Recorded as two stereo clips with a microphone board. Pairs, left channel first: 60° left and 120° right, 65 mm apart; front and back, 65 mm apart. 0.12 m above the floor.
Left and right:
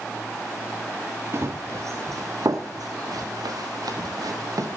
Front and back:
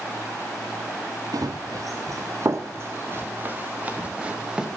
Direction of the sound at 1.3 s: 165° right.